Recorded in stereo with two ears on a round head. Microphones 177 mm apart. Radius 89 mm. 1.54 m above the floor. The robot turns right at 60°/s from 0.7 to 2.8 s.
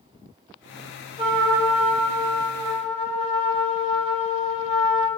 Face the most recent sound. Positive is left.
turn(degrees=50)